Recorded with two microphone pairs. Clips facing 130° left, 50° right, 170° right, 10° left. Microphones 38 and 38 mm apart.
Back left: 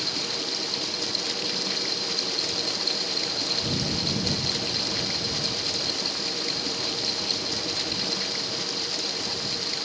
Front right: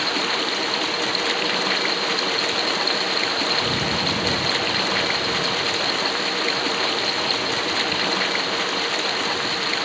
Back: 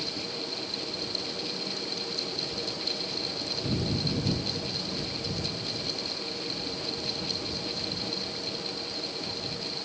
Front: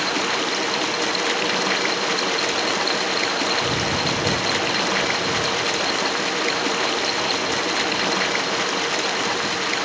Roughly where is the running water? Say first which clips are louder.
Front right 8 dB, front 14 dB; ahead.